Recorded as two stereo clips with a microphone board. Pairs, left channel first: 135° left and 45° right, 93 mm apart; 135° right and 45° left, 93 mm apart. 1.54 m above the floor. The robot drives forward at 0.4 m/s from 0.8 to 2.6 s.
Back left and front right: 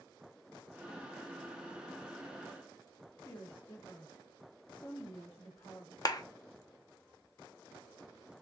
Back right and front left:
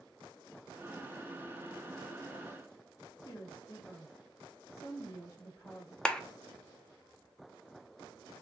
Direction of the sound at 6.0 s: 150° left.